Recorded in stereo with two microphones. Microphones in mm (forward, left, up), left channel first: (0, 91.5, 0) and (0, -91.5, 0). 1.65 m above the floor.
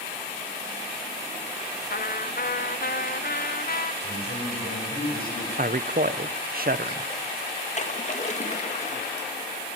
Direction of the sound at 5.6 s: 55° right (ahead or behind).